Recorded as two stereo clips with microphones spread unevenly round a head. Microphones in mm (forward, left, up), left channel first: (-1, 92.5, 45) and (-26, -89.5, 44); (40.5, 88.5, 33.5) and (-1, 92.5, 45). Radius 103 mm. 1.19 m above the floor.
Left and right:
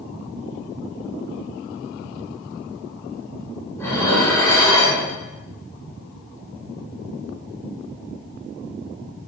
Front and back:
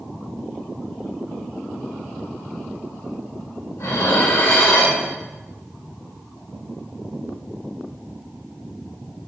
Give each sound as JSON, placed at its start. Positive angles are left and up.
{"t": 3.8, "sound": "dishes clattering", "azimuth_deg": 5, "distance_m": 8.0}